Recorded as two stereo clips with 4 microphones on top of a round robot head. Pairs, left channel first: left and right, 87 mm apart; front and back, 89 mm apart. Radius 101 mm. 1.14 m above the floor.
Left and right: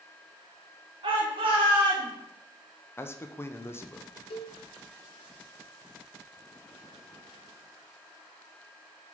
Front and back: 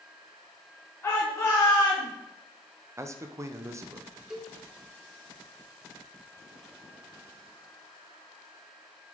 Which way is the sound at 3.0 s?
140° left.